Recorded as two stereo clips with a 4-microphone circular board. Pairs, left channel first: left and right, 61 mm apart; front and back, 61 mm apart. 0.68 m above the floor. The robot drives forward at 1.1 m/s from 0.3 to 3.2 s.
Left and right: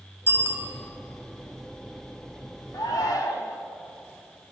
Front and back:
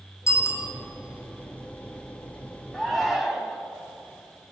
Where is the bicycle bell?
40° right, 3 m; by 0.7 s 45° right, 2.5 m.